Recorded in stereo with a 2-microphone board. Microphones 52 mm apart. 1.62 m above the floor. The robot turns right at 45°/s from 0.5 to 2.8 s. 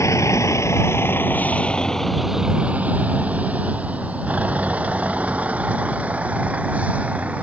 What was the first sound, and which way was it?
A vehicle, 75° left (ahead or behind).